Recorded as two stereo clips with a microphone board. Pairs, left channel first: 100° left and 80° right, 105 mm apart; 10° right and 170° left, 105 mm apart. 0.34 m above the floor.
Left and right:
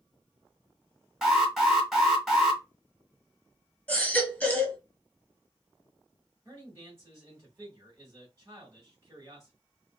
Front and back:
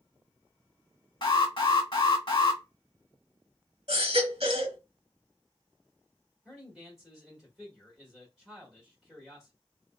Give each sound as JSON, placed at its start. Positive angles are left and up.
{"t": 1.2, "sound": "an alarm", "azimuth_deg": 10, "distance_m": 1.3}
{"t": 3.9, "sound": "a baby crying", "azimuth_deg": 175, "distance_m": 1.1}
{"t": 6.5, "sound": "a man speaking", "azimuth_deg": -110, "distance_m": 1.2}